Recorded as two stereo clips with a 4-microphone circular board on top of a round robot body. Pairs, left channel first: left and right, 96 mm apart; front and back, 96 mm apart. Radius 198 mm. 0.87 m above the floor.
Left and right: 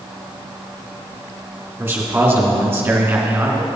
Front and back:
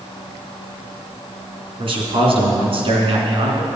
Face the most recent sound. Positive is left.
turn(degrees=-160)